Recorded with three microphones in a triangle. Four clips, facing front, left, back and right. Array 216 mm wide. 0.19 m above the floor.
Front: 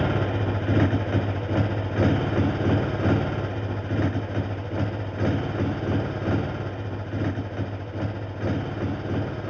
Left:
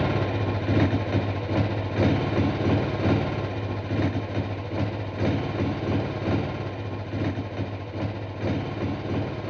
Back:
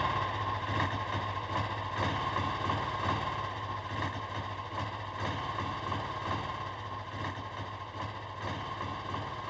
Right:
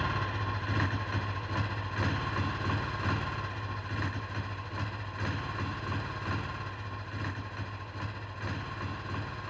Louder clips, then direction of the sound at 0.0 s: Left 8 dB, front 6 dB; 40° left.